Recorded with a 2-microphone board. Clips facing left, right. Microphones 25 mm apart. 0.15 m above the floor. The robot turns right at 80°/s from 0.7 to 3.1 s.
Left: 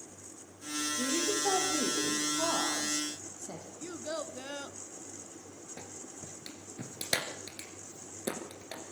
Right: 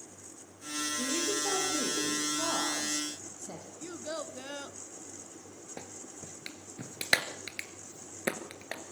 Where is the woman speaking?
20° left, 6.5 m; by 3.7 s 170° right, 6.5 m.